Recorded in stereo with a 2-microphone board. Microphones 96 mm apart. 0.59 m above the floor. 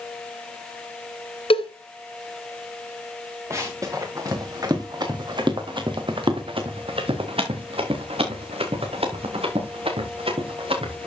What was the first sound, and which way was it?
A cowbell, 70° left (ahead or behind).